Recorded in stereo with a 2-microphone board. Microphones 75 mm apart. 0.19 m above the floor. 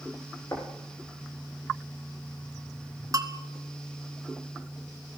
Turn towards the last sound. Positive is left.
turn(degrees=-50)  # may be behind; listen again after turning